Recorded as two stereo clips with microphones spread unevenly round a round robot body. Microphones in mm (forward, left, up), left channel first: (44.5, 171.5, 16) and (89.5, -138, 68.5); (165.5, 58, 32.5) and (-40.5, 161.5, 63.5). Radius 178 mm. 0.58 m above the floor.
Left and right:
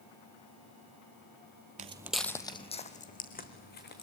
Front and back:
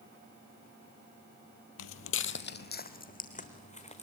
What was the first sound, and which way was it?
Footsteps, 35° right.